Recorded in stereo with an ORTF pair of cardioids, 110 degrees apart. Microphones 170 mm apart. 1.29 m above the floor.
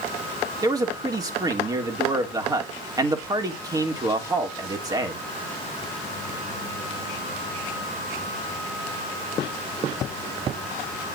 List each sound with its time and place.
0.6 s a man speaking: 20° right, 3.5 m